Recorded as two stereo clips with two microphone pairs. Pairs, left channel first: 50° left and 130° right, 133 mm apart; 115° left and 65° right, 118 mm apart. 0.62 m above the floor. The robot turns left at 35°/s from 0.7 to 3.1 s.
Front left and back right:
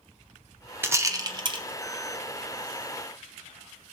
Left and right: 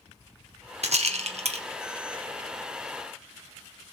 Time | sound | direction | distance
0.8 | a rattle | 55° right | 0.8 m